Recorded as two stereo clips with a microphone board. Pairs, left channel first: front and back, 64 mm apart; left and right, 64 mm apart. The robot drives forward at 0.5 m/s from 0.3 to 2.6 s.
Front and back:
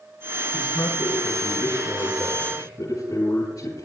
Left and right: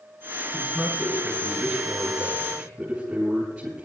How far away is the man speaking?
About 8.5 m.